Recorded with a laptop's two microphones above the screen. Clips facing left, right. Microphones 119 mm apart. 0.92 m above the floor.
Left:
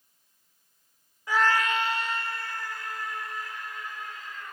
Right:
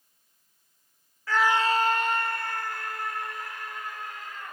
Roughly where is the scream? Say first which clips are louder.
Right 1 dB; centre.